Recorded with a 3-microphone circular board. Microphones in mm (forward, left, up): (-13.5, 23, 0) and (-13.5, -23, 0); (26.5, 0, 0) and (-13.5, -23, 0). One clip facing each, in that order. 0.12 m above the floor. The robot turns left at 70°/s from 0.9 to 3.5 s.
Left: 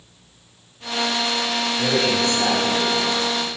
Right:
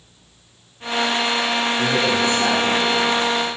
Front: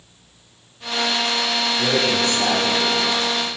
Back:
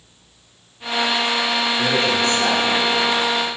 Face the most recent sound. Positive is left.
turn(degrees=140)